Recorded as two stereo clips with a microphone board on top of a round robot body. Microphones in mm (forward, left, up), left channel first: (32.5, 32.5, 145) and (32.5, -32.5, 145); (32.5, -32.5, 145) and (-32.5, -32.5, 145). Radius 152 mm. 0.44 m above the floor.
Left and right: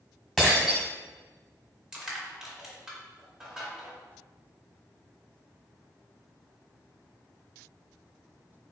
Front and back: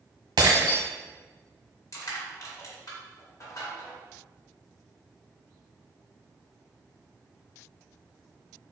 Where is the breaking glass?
Straight behind, 1.4 m.